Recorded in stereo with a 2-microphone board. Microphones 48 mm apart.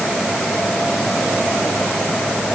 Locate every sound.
Only background noise.